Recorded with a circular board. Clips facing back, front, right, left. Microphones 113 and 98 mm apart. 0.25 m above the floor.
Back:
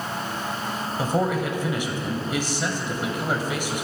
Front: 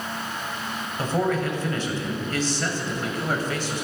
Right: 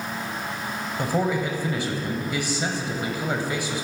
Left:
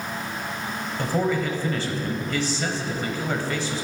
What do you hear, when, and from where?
1.0 s a man speaking: 135° right, 1.1 m